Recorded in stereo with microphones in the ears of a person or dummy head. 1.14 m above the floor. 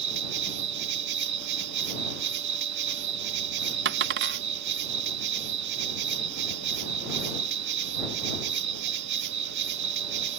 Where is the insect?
65° right (ahead or behind).